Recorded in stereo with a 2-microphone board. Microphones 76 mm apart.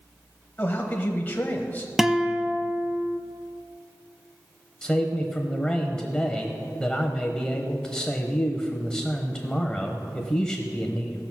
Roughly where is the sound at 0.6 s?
Left.